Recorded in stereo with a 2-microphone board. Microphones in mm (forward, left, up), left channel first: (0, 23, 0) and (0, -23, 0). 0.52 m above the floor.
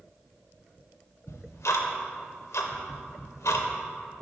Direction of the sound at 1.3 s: 85° left.